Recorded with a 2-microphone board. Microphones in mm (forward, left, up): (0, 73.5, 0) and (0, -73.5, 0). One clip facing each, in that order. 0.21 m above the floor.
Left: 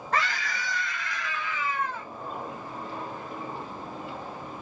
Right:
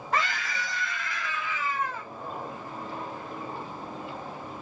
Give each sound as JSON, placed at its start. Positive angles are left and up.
{"t": 0.1, "sound": "a scream", "side_deg": -5, "distance_m": 1.4}